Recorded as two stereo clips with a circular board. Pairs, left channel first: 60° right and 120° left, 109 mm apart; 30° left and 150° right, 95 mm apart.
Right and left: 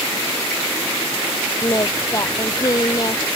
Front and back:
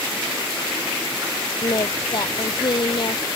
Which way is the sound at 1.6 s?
5° right.